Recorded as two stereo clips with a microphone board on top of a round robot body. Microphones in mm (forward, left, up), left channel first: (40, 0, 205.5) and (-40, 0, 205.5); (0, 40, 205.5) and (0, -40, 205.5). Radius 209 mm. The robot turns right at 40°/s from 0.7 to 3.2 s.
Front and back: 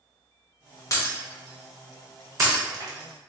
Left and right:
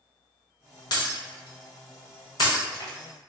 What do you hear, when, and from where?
0.9 s breaking glass: 55° left, 1.0 m; by 3.3 s 145° left, 1.0 m